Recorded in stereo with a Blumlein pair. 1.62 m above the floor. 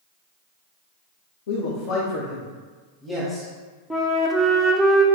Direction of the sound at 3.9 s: 5° left.